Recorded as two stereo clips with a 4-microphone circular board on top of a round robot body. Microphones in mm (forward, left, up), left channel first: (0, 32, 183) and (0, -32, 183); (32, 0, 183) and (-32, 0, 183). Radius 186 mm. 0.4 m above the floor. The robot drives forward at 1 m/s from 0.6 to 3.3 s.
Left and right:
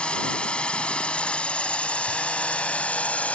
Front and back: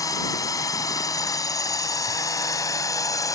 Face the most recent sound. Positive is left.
turn(degrees=20)